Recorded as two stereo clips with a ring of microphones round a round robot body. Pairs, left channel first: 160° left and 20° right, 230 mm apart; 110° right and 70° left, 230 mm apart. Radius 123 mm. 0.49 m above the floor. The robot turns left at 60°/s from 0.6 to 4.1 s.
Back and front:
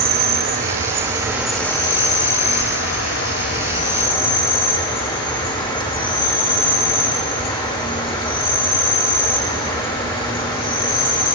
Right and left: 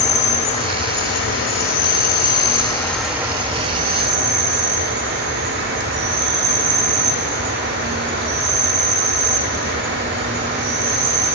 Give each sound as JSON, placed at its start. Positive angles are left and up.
{"t": 0.0, "sound": "an insect", "azimuth_deg": -60, "distance_m": 1.7}